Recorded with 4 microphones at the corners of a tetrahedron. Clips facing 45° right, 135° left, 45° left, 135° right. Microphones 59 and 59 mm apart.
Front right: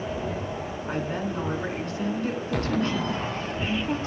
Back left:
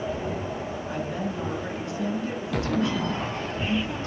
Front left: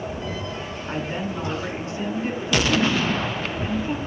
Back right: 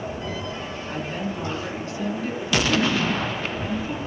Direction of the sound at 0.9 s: 10° right.